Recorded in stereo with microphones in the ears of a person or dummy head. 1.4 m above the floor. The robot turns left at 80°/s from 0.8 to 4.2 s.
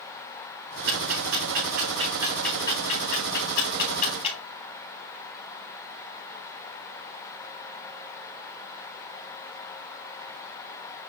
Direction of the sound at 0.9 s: 55° right (ahead or behind).